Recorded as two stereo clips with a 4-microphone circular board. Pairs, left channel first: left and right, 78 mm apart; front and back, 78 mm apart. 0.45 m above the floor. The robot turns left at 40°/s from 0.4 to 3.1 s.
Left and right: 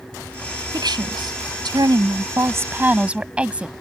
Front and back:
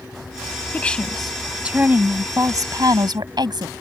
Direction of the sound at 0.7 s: 70° right.